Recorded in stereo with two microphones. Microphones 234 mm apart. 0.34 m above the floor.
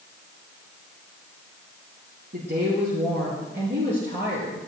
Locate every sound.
2.3 s a woman speaking: 50° right (ahead or behind), 5 m; by 4.7 s 60° right (ahead or behind), 5.5 m